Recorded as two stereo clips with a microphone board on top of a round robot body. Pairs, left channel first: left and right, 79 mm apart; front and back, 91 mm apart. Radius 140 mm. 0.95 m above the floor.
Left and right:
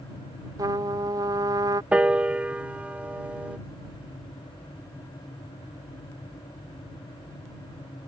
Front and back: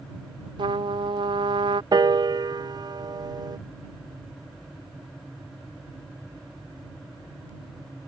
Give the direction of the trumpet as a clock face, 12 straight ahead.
5 o'clock.